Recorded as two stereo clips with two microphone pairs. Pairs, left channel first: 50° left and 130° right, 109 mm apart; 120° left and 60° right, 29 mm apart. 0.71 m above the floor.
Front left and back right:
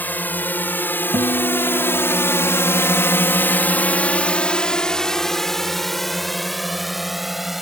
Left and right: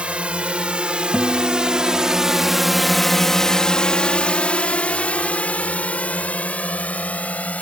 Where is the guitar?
105° right.